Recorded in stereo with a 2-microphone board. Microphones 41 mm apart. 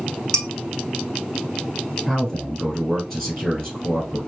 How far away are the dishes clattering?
About 0.9 m.